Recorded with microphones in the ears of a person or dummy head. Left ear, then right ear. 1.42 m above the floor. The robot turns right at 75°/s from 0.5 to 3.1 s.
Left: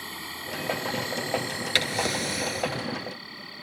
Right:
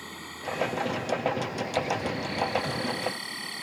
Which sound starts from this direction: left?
A drawer, at 1.8 s.